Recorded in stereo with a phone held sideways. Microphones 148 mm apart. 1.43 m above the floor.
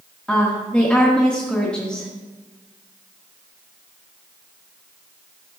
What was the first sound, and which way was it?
A woman speaking, 5° left (ahead or behind).